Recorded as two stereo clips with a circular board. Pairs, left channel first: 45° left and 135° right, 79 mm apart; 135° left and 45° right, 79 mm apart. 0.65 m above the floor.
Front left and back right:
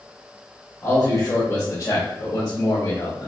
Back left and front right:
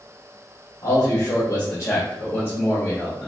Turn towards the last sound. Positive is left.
turn(degrees=60)